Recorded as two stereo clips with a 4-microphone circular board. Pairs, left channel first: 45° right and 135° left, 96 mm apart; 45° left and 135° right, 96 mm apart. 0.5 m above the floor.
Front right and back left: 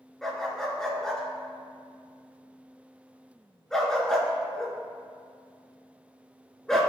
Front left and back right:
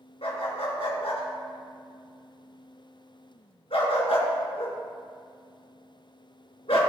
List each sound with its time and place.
0.2 s a dog barking: 40° left, 2 m